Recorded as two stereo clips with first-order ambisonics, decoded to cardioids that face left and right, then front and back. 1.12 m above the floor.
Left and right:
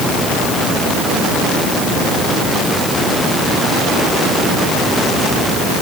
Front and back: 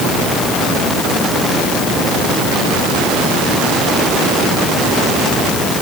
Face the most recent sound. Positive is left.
No sound to turn to.